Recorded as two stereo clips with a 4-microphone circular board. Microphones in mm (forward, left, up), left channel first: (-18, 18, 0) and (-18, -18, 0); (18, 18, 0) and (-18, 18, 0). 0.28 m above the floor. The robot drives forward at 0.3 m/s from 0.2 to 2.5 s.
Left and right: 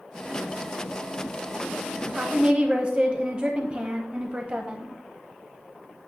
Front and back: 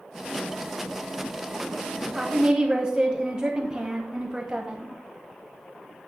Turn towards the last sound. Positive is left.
turn(degrees=-130)